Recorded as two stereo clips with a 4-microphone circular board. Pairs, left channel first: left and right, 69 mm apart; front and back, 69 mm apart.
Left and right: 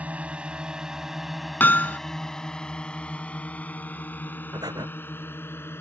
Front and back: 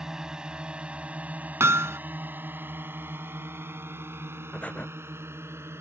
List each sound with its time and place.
0.0 s a drone: 115° right; by 5.8 s 135° left
1.6 s hammering: 145° left
4.5 s breathing: 70° right